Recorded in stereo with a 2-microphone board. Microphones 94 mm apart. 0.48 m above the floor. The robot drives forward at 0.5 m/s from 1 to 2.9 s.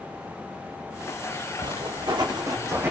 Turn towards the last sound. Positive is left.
turn(degrees=-25)  # may be behind; listen again after turning